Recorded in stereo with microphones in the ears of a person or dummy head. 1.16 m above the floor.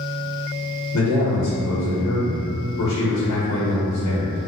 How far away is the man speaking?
About 0.9 m.